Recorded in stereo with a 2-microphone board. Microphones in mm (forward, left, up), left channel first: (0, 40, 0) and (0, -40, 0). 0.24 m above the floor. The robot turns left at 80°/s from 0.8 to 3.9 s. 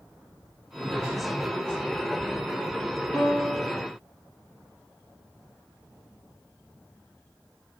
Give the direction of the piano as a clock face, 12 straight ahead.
11 o'clock.